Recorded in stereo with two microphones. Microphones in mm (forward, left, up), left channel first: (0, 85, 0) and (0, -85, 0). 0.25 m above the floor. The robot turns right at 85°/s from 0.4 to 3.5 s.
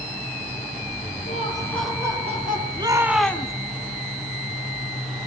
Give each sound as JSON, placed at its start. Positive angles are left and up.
{"t": 1.3, "sound": "laughter", "azimuth_deg": 130, "distance_m": 6.5}
{"t": 2.8, "sound": "a shout", "azimuth_deg": -40, "distance_m": 2.5}